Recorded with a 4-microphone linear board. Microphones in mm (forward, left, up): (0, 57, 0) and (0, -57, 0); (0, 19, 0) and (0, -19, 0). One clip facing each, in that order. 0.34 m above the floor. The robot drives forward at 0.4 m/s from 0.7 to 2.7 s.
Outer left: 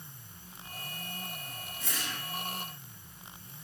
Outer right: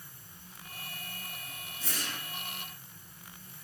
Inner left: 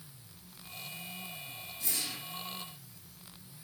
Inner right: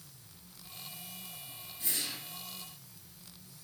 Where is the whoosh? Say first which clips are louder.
Even, even; 35° right (ahead or behind), 0.8 m; by 2.2 s 40° right (ahead or behind), 0.7 m.